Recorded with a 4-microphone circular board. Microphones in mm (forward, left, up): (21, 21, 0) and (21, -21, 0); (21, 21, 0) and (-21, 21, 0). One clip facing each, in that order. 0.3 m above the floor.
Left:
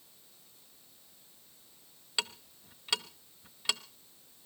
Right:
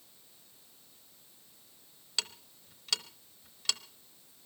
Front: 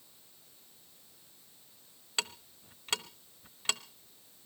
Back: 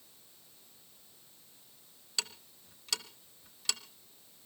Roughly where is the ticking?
Ahead left.